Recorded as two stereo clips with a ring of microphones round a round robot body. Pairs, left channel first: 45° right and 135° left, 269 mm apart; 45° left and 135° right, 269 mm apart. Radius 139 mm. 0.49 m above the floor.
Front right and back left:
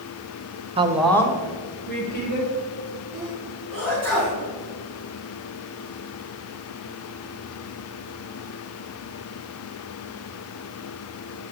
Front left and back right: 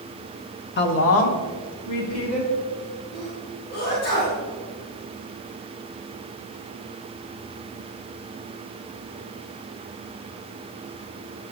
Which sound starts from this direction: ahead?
A sneeze, at 3.1 s.